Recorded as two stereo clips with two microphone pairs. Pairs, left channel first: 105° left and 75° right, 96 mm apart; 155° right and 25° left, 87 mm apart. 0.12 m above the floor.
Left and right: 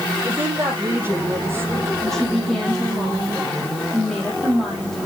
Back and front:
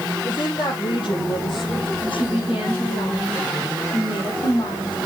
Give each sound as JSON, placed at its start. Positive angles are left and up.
{"t": 0.2, "sound": "a woman speaking", "azimuth_deg": -145, "distance_m": 4.0}
{"t": 2.0, "sound": "a woman speaking", "azimuth_deg": -170, "distance_m": 5.0}